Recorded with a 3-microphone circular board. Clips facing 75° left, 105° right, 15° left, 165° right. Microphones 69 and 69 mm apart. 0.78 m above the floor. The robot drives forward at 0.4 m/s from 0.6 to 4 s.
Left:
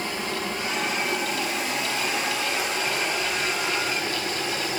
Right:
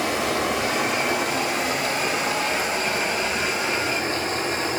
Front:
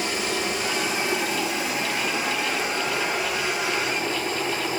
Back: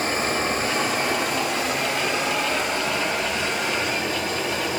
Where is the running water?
115° right, 0.8 m; by 4.8 s 155° right, 1.9 m.